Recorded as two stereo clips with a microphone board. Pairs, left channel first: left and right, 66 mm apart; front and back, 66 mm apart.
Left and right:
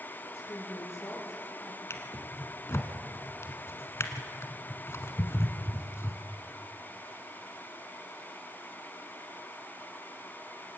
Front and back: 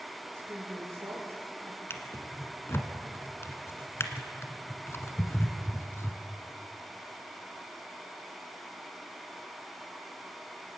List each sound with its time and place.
0.3 s a woman speaking: 130° left, 5.5 m; by 1.8 s 135° left, 7 m
1.9 s a drawer: 45° left, 1.6 m